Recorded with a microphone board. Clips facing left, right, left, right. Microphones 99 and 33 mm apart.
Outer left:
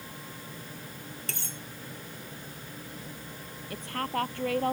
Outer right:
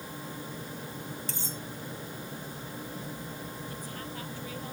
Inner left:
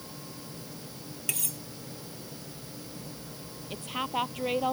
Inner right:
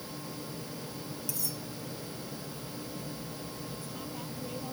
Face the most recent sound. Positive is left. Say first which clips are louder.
# outer left 7 dB, inner left 8 dB
turn(degrees=70)  # may be behind; listen again after turning